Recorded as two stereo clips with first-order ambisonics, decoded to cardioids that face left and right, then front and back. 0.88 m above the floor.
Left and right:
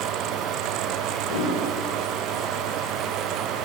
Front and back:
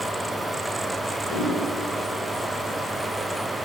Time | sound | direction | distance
1.3 | a whoosh | 70° left | 6 m